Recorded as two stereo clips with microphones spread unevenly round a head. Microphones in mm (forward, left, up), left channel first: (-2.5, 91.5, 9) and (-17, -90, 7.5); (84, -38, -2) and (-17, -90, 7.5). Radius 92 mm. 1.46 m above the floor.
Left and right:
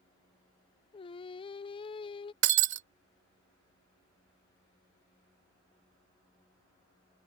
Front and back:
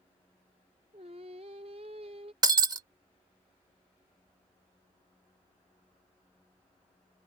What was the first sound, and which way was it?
Singing, 150° left.